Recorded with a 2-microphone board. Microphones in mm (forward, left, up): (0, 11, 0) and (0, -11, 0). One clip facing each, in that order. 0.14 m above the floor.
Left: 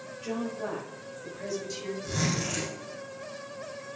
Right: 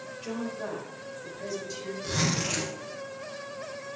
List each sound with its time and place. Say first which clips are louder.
0.2 s a woman speaking: left 2 dB; 20° right (ahead or behind), 5.5 m; by 1.9 s centre (ahead or behind), 6 m
2.0 s a zipper: right 3 dB; 65° right (ahead or behind), 5 m